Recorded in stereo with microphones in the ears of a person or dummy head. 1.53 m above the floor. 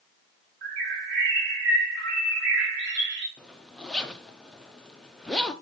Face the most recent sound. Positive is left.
turn(degrees=5)  # may be behind; listen again after turning